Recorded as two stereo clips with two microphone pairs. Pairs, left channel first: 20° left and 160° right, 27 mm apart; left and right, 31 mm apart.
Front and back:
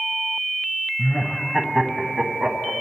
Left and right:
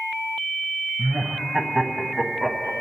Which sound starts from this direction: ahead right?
Laughter, at 1.0 s.